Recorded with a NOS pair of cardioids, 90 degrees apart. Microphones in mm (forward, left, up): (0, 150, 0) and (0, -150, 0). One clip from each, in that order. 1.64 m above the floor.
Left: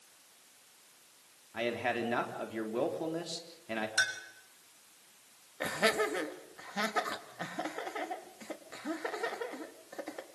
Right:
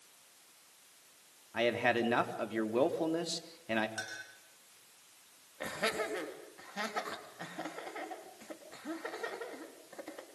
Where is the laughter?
30° left, 4 m.